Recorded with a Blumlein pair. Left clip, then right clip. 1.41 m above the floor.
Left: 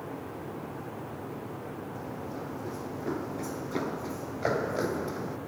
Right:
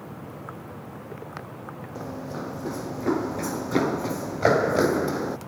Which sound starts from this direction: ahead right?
Running footsteps, at 1.9 s.